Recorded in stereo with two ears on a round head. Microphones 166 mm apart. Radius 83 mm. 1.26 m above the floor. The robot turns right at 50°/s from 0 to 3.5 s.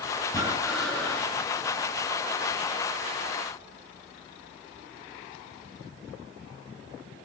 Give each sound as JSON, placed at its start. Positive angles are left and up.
{"t": 0.3, "sound": "breathing", "azimuth_deg": -25, "distance_m": 6.5}